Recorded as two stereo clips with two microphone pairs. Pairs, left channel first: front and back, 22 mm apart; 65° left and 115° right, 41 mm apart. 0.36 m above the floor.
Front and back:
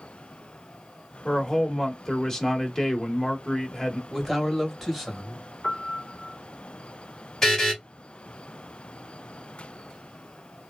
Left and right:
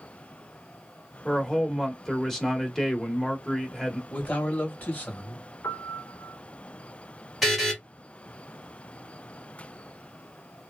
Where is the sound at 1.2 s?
15° right, 0.9 m.